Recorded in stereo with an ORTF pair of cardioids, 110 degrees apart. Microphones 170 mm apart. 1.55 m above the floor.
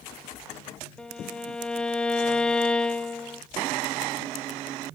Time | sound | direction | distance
1.0 | a violin | 5° left | 0.6 m